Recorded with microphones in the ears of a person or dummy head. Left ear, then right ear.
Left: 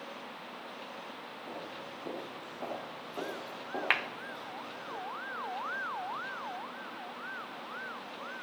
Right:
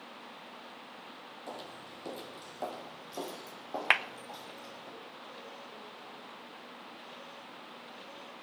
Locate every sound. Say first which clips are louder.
1.5 s footsteps: left 1 dB; 45° right (ahead or behind), 3 m; by 4.9 s 35° right (ahead or behind), 5.5 m
3.9 s a clap: right 3 dB; 25° right (ahead or behind), 0.7 m